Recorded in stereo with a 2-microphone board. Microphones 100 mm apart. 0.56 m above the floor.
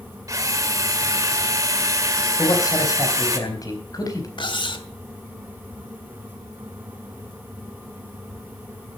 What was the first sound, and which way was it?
A drill, 30° right (ahead or behind).